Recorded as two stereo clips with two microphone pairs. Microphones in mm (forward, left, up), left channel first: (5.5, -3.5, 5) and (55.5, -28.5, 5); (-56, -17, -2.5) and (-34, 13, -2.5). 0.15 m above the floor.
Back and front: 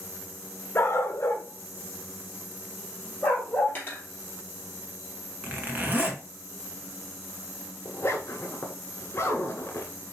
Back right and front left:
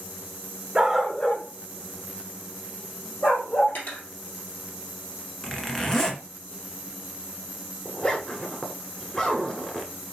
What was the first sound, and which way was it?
A dog barking, 120° left.